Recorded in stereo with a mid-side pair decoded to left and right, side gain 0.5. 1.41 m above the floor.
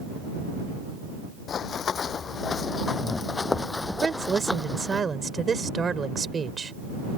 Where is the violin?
I don't hear a violin.